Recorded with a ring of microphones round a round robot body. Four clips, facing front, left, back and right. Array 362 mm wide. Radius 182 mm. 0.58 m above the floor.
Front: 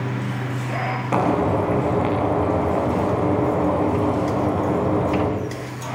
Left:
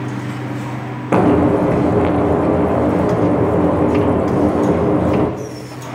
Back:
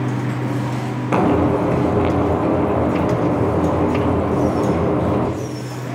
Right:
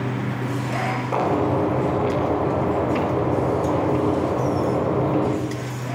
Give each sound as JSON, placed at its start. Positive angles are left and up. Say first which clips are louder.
{"t": 1.1, "sound": "frying", "louder": "left 9 dB, back 4 dB", "azimuth_deg": 100, "distance_m": 7.5}